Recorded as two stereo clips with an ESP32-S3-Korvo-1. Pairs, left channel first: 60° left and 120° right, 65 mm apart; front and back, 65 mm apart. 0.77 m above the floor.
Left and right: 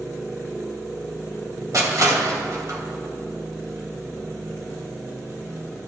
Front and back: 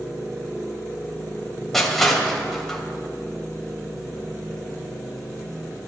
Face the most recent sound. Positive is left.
turn(degrees=-85)